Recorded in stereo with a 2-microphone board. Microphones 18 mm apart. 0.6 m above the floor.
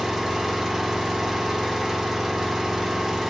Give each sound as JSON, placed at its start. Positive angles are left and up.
{"t": 0.0, "sound": "an engine running", "side_deg": -30, "distance_m": 0.8}